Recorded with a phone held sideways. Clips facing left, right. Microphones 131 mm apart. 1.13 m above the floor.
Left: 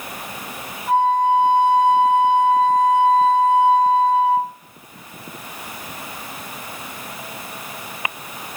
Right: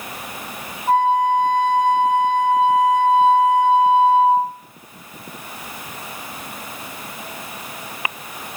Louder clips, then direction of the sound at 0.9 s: Even; 85° right.